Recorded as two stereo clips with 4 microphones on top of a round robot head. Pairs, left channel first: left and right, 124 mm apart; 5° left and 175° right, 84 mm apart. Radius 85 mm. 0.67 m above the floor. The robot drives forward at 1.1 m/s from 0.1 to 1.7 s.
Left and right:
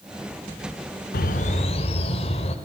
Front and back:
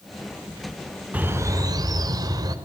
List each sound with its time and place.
1.1 s a bird: 110° left, 0.8 m; by 2.5 s 140° left, 1.1 m